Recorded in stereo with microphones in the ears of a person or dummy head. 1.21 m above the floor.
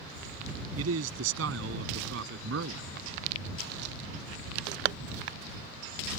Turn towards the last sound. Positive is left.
turn(degrees=-70)  # may be behind; listen again after turning